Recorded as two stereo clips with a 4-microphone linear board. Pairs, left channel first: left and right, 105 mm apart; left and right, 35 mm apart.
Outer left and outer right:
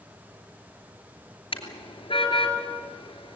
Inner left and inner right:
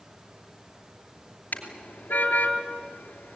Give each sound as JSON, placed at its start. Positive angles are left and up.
{"t": 1.5, "sound": "a car horn", "side_deg": 65, "distance_m": 2.5}